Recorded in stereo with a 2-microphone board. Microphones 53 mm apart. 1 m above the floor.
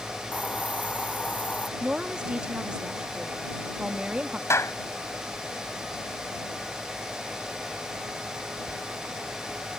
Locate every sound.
0.3 s a hiss: 30° left (ahead or behind)
1.8 s a woman speaking: 20° right (ahead or behind)
4.5 s a clap: 55° left (ahead or behind)